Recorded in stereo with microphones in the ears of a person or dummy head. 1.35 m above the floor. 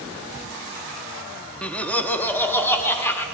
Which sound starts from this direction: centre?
Laughter, at 1.6 s.